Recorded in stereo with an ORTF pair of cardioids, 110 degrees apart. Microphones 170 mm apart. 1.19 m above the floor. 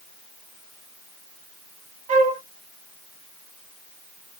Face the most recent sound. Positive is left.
turn(degrees=-45)